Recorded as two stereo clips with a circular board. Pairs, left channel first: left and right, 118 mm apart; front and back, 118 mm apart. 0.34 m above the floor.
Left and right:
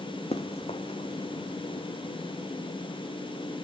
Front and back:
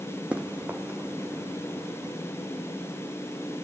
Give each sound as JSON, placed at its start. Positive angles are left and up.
{"t": 0.3, "sound": "running footsteps", "azimuth_deg": 100, "distance_m": 0.8}